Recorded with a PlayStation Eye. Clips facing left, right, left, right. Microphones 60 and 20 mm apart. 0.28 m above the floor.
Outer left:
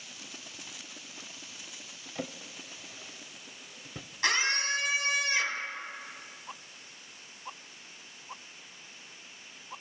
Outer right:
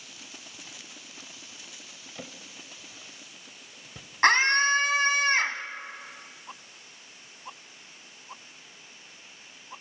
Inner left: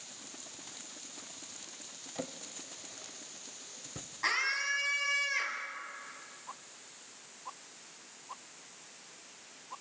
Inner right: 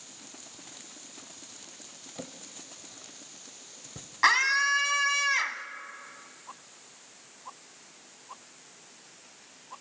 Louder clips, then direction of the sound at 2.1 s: Outer left 5 dB, inner left 2 dB; 15° left (ahead or behind).